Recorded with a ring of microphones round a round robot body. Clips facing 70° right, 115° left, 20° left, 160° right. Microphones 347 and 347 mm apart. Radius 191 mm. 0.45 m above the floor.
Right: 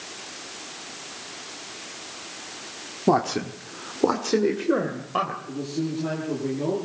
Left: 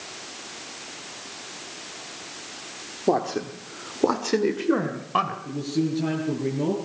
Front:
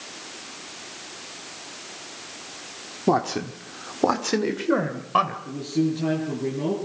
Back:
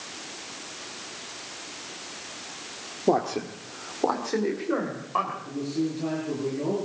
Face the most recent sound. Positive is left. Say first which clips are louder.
# left 4 dB, front 4 dB
turn(degrees=75)